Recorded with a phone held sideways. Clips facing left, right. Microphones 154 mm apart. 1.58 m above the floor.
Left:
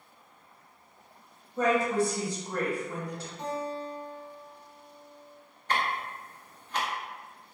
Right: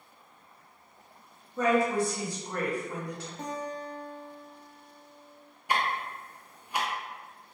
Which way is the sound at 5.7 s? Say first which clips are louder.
Right 1 dB; 10° right (ahead or behind).